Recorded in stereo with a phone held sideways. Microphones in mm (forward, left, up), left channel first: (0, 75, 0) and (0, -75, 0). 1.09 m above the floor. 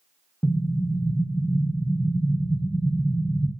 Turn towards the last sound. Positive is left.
turn(degrees=15)  # may be behind; listen again after turning